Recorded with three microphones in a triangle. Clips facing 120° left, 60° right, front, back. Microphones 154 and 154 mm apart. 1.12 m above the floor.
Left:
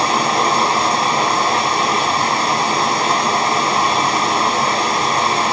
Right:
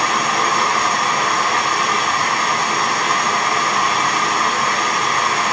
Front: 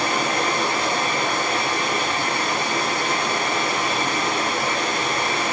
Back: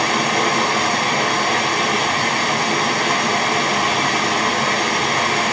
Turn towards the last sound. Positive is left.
turn(degrees=-175)